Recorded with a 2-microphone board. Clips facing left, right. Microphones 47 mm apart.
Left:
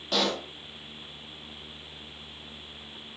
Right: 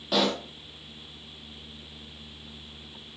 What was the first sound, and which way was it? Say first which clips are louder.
A pop: right 2 dB; 5° right (ahead or behind).